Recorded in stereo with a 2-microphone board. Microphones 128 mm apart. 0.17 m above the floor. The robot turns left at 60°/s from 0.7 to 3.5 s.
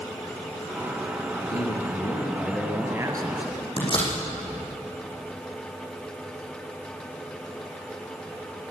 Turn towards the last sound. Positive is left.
turn(degrees=45)  # may be behind; listen again after turning